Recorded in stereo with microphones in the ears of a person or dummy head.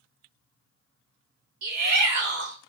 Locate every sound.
1.6 s a shout: 60° right (ahead or behind), 1.1 m